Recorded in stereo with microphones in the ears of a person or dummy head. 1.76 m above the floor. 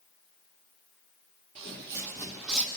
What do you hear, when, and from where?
1.6 s footsteps: 25° right (ahead or behind), 2 m; by 2.7 s 5° left (ahead or behind), 2.5 m